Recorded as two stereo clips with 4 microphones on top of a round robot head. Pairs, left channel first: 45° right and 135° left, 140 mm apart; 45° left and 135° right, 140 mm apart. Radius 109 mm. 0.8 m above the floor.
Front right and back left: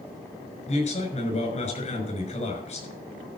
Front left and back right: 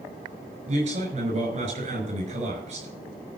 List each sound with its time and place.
0.7 s a man speaking: 90° right, 5.5 m